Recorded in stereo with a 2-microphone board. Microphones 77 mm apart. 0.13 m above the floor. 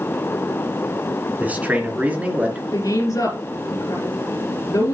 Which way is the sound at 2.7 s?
45° left (ahead or behind).